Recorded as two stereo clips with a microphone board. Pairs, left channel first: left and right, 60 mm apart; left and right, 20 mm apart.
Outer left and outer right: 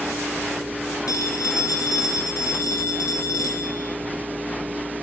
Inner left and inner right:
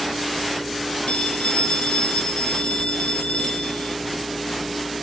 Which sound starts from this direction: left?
A phone ringing, at 1.1 s.